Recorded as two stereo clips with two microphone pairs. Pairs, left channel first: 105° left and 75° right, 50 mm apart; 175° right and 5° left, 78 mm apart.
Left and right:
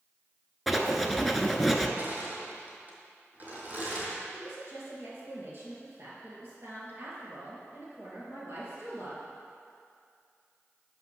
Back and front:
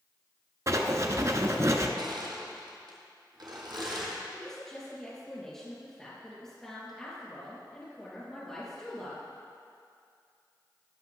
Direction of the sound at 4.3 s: 90° right.